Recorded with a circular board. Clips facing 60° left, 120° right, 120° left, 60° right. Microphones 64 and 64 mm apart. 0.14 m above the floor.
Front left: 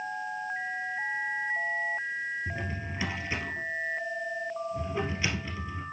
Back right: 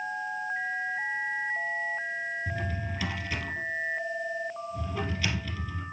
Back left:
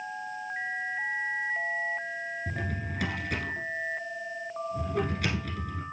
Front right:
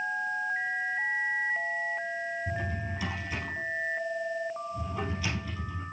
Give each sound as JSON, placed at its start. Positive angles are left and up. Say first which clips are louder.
{"t": 2.5, "sound": "a drawer", "louder": "back right 1 dB, front right 1 dB", "azimuth_deg": 130, "distance_m": 2.0}